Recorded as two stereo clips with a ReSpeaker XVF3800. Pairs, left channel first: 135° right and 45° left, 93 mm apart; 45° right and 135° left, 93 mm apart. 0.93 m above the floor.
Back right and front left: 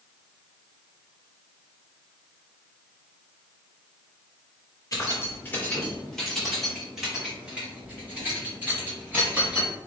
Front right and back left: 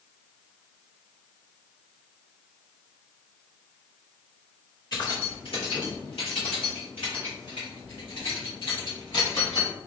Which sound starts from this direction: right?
Keys jangling, at 4.9 s.